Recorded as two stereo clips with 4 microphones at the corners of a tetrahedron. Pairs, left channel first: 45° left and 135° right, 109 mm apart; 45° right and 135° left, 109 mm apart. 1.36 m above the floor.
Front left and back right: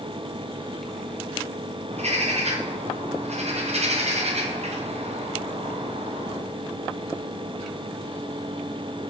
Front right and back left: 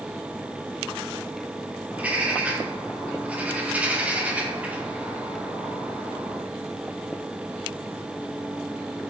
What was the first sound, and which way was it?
A bird, 150° right.